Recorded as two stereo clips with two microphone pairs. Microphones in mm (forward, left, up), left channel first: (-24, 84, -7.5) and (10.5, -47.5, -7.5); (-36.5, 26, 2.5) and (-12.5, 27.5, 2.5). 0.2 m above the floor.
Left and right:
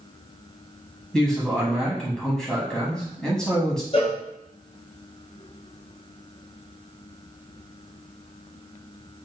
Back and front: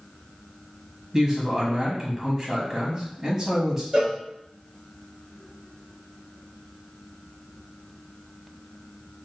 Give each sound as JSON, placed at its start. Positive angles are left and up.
{"t": 1.1, "sound": "a man speaking", "azimuth_deg": 35, "distance_m": 1.0}
{"t": 3.9, "sound": "a cowbell", "azimuth_deg": 60, "distance_m": 1.0}